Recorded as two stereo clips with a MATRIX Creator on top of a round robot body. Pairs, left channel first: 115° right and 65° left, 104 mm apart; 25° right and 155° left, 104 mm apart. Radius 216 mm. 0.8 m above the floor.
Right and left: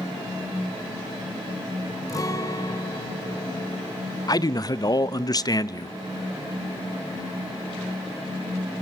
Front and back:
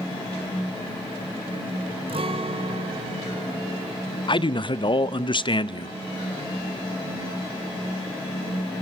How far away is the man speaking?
About 0.8 m.